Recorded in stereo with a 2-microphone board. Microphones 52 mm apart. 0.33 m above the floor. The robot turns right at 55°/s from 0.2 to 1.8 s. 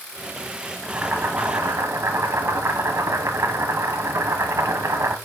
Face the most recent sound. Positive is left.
turn(degrees=-110)